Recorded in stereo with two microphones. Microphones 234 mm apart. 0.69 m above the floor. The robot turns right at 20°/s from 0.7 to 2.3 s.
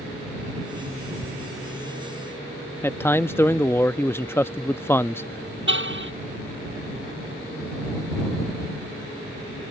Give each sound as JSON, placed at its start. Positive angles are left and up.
{"t": 1.2, "sound": "ticking", "side_deg": -10}
{"t": 2.8, "sound": "a man speaking", "side_deg": 10}
{"t": 5.7, "sound": "a car horn", "side_deg": -55}